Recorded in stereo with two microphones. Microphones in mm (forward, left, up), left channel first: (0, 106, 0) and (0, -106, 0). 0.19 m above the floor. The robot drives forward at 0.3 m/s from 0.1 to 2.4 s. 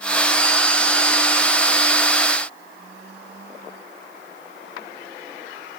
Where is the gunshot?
No gunshot in this recording.